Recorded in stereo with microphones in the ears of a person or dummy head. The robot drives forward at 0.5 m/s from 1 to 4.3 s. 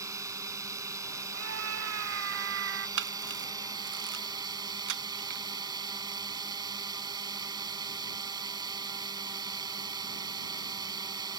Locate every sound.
0.0 s a drone: 20° right (ahead or behind); by 11.4 s 25° right (ahead or behind)
1.3 s a scream: 70° right (ahead or behind); by 2.9 s 65° right (ahead or behind)
3.0 s a camera shutter: 75° right (ahead or behind); by 5.4 s 80° right